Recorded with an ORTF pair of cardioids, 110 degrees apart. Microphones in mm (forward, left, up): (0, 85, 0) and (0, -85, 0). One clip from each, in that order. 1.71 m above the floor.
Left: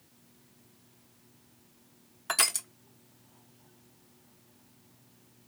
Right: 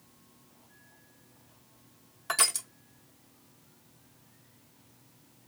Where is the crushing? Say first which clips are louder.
Even; 15° left, 0.7 m.